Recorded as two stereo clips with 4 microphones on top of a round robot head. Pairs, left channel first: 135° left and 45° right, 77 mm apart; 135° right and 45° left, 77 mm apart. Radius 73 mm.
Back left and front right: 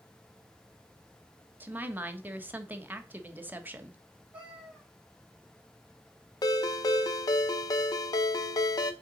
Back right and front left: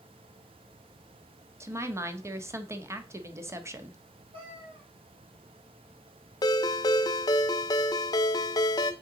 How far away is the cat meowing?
About 3.5 m.